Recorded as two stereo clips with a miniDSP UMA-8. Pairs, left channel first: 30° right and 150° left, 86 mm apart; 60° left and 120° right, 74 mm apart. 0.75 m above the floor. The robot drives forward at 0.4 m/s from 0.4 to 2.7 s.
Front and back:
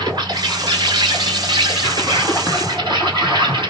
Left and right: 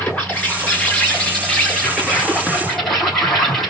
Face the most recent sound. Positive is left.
turn(degrees=145)